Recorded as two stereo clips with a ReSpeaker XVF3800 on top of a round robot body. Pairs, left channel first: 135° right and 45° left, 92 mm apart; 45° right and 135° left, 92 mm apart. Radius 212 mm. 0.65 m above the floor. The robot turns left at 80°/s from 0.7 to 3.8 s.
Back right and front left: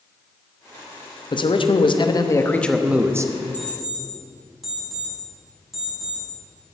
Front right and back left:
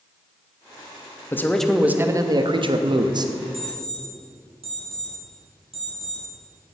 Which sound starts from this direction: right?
A man speaking, at 1.3 s.